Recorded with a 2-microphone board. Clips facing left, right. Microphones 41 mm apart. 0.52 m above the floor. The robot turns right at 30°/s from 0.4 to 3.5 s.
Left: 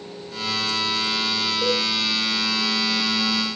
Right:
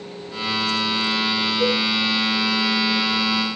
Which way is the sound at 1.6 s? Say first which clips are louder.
Right 2 dB; 80° right.